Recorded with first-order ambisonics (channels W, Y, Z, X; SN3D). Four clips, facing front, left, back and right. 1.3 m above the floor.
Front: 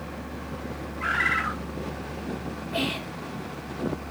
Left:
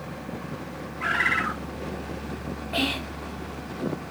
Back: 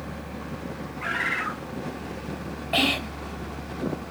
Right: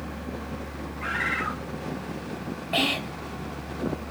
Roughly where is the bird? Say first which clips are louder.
Left 4 dB, front 2 dB; ahead left.